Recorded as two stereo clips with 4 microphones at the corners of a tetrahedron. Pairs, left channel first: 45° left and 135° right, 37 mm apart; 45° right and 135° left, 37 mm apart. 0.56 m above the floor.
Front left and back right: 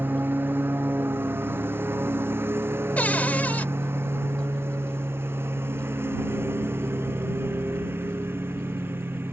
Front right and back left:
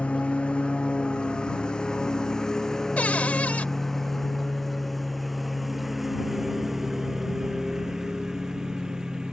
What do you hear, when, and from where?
0.0 s a lawn mower: 105° right; by 9.3 s 155° right
3.0 s a cupboard door: straight ahead